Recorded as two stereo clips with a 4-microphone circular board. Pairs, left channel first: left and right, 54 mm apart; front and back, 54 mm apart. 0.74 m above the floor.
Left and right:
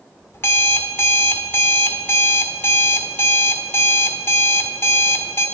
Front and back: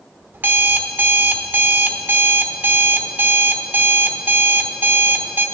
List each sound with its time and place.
0.3 s an alarm clock: 130° left, 0.7 m